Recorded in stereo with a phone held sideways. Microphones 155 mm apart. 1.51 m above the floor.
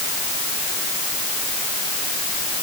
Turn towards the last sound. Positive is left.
No sound to turn to.